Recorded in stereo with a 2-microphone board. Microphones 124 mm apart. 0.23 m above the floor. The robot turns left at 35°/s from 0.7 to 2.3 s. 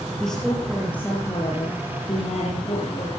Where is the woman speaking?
175° left, 5 m; by 3.2 s 120° left, 5 m.